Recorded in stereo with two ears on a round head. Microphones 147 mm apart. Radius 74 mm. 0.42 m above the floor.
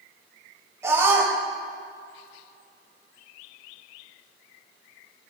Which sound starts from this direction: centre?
A scream, at 0.8 s.